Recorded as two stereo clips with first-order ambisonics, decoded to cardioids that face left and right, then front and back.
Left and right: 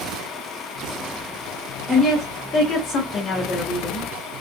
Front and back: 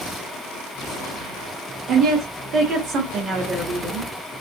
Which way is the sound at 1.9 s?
165° left.